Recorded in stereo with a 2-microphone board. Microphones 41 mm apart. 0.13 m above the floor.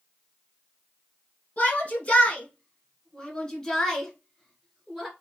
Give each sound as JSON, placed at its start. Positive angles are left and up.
{"t": 1.6, "sound": "a shout", "side_deg": 35, "distance_m": 1.9}